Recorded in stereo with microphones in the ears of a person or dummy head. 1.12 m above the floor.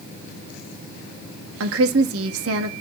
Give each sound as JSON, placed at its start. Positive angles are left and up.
{"t": 1.6, "sound": "a woman speaking", "side_deg": -75, "distance_m": 1.7}